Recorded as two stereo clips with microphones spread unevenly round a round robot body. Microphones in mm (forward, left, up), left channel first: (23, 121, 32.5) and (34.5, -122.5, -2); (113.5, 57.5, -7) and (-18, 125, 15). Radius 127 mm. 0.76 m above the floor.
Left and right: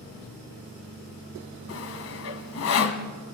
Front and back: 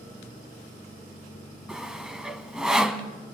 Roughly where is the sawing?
Left.